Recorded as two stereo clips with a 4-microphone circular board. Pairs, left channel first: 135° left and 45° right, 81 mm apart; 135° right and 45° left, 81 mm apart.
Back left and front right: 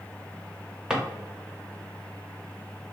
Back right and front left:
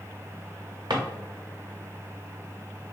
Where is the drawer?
35° left, 0.5 m.